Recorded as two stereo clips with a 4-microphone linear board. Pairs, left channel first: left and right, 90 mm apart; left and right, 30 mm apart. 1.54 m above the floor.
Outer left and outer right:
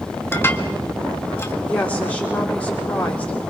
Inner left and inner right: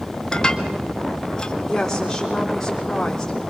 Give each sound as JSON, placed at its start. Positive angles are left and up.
{"t": 0.3, "sound": "dishes clattering", "side_deg": 25, "distance_m": 1.6}
{"t": 1.7, "sound": "a woman speaking", "side_deg": 15, "distance_m": 4.5}